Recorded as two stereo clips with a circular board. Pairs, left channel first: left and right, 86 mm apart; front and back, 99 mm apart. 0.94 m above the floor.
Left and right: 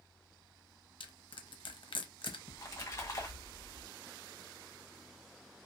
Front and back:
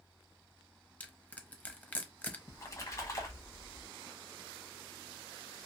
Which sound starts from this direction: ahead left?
A splash, at 2.5 s.